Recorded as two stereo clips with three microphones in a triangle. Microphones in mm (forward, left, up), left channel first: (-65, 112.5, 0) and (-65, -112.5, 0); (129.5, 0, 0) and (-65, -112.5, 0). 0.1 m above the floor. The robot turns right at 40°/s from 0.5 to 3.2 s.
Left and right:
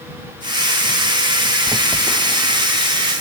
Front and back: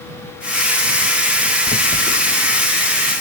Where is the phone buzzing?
5° right; by 2.7 s 35° left.